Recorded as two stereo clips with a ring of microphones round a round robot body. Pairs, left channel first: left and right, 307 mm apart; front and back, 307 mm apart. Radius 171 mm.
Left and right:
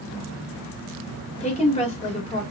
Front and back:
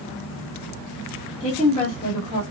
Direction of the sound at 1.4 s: 45° left.